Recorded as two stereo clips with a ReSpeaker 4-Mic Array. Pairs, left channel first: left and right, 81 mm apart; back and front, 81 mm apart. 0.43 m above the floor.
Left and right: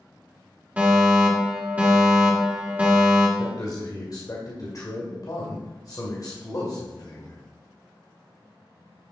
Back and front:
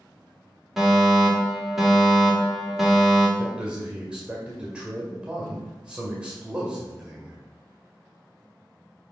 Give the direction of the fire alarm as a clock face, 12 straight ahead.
3 o'clock.